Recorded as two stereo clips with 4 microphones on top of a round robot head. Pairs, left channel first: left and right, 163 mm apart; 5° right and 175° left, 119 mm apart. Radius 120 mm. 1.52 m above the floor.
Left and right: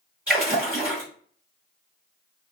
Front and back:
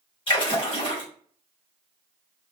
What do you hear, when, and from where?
0.3 s a splash: 10° right, 1.5 m